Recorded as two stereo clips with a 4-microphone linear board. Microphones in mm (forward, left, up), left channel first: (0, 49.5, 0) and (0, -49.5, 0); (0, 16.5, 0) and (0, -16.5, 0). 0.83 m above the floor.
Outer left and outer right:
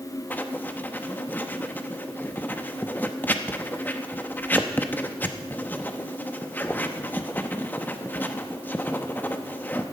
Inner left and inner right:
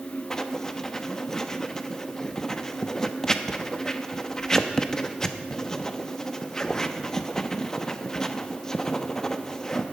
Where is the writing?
20° left (ahead or behind), 0.8 m.